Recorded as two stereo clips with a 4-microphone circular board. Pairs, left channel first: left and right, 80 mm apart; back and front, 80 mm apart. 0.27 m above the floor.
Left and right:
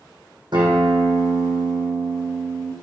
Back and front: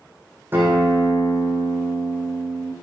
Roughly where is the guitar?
Ahead right.